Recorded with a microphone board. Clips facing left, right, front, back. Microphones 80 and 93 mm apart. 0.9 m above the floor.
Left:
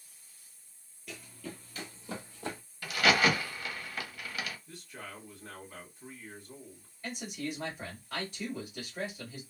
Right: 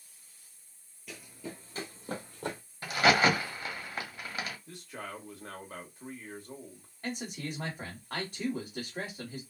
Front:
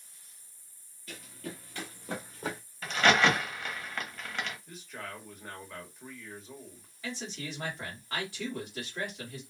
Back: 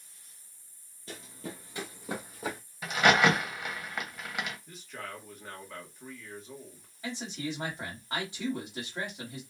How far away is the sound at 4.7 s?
About 1.2 m.